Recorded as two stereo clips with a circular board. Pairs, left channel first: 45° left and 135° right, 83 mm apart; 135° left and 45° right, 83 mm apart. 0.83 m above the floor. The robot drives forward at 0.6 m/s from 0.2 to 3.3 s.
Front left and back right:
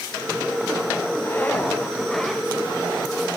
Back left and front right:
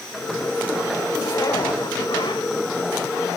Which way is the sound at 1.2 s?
100° left.